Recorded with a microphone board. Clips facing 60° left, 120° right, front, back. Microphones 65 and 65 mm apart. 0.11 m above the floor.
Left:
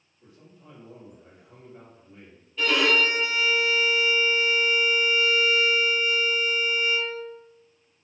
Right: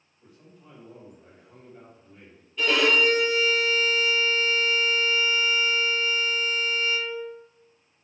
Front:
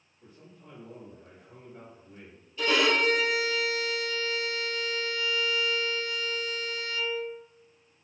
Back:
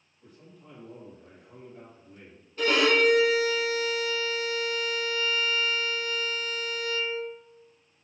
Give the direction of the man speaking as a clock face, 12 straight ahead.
12 o'clock.